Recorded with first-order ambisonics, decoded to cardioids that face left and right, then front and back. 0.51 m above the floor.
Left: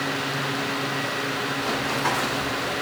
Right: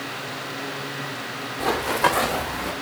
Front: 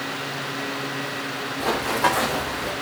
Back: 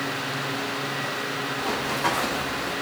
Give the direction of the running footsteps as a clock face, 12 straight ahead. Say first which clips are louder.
Right 7 dB, front 5 dB; 2 o'clock.